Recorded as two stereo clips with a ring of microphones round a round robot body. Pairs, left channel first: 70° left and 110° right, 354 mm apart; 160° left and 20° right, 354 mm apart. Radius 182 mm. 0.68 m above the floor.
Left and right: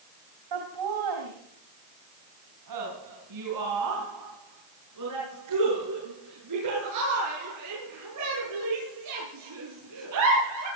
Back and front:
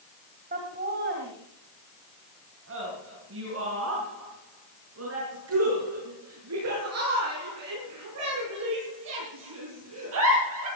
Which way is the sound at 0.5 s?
90° right.